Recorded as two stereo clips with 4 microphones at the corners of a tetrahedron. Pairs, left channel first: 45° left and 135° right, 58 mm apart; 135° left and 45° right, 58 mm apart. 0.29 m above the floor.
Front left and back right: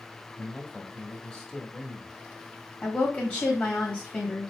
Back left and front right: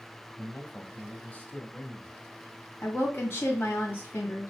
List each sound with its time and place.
0.4 s a man speaking: 110° left, 1.0 m
2.8 s a woman speaking: 105° left, 2.0 m